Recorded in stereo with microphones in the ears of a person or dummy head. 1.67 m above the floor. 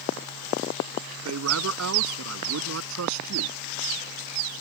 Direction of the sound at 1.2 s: 80° right.